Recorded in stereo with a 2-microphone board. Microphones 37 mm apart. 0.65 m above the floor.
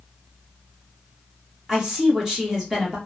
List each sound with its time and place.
1.7 s a woman speaking: 20° right (ahead or behind), 1.1 m